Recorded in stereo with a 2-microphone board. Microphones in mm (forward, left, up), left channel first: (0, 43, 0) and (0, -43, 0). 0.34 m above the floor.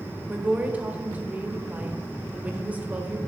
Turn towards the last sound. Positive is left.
turn(degrees=-20)  # may be behind; listen again after turning